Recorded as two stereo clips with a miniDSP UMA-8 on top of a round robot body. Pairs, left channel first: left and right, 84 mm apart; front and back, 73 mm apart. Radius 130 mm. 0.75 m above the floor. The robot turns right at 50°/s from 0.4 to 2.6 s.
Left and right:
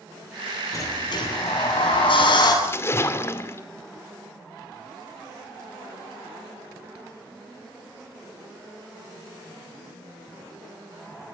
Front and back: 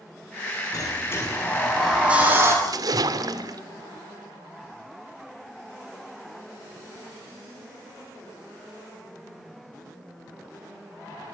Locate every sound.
0.7 s a sliding door: 35° left, 8 m; by 2.5 s 125° left, 8 m
2.6 s a splash: 150° left, 2.5 m